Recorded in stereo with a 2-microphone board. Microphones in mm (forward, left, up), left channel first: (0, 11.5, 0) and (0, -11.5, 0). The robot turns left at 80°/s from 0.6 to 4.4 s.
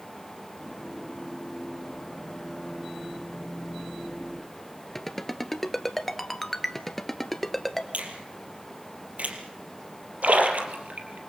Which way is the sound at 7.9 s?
65° right (ahead or behind).